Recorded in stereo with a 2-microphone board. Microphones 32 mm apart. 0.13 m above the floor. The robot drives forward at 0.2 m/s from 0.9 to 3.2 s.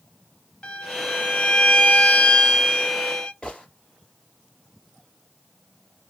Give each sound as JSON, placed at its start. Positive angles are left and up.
{"t": 0.6, "sound": "a violin", "side_deg": 35, "distance_m": 0.8}
{"t": 3.4, "sound": "a gunshot", "side_deg": 25, "distance_m": 2.0}